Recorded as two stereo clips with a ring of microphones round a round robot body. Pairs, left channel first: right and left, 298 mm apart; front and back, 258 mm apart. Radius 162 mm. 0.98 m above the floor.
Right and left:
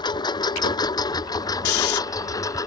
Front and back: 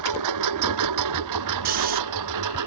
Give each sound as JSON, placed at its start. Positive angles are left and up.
{"t": 0.0, "sound": "a lawn mower", "azimuth_deg": -165}
{"t": 1.6, "sound": "snoring", "azimuth_deg": -120}